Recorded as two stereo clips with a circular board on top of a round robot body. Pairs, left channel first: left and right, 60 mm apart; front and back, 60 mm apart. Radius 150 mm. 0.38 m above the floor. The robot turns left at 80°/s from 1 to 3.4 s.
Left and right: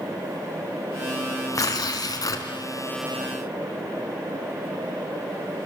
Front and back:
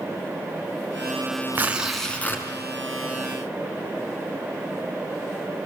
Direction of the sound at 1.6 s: 125° left.